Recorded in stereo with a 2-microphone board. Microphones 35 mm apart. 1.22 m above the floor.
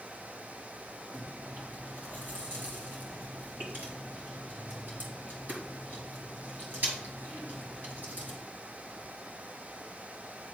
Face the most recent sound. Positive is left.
turn(degrees=-60)  # may be behind; listen again after turning